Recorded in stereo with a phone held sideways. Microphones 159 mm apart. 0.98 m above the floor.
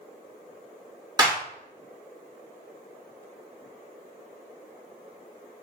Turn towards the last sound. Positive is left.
turn(degrees=-25)  # may be behind; listen again after turning